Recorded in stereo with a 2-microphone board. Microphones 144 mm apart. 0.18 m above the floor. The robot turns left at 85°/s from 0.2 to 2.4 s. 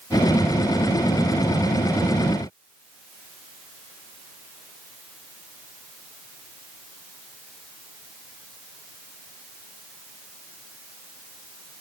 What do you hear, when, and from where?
Only background noise.